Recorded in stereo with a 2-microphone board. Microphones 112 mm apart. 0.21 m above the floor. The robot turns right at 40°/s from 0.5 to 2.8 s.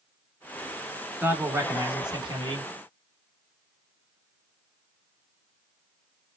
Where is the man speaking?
165° right, 1.7 m; by 2.7 s 105° right, 1.7 m.